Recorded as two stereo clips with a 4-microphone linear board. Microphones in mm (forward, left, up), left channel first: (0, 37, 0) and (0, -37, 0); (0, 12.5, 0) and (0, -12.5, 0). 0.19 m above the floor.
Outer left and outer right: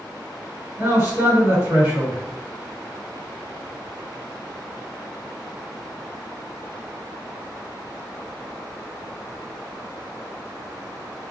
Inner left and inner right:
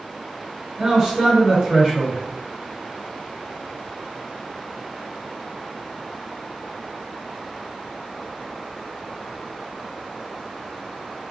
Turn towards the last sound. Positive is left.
turn(degrees=-35)  # may be behind; listen again after turning